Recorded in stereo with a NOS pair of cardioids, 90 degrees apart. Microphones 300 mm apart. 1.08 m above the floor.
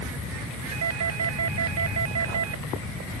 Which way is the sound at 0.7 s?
60° right.